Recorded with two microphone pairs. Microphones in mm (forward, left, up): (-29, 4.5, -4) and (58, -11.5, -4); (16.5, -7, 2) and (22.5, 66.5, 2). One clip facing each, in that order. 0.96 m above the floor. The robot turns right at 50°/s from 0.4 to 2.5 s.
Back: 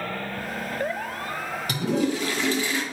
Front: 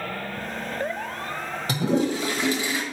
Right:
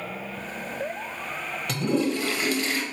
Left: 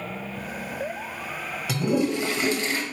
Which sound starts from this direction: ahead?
A toilet flushing, at 1.7 s.